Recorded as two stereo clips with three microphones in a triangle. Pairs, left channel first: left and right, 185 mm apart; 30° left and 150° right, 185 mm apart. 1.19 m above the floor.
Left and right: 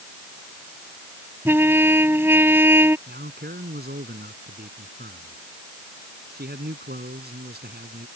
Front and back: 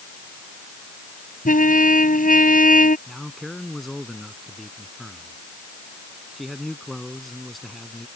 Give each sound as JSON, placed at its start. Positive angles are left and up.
{"t": 1.4, "sound": "a trumpet", "azimuth_deg": -10}
{"t": 3.1, "sound": "a man speaking", "azimuth_deg": -60}